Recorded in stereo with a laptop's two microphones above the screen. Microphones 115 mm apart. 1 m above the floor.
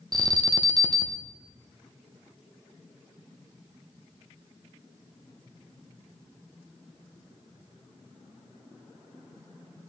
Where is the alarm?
35° right (ahead or behind), 0.9 m.